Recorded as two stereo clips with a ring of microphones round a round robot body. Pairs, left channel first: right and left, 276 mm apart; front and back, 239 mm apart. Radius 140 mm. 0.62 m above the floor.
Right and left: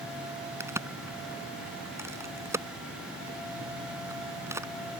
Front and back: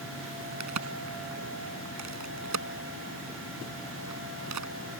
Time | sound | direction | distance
0.6 | a crack | 170° left | ?